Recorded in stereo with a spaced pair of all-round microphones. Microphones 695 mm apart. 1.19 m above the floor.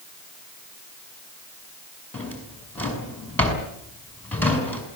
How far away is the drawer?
About 6 m.